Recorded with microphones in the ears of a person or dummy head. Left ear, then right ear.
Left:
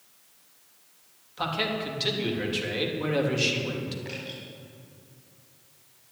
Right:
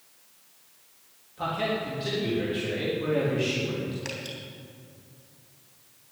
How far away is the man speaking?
About 3.5 m.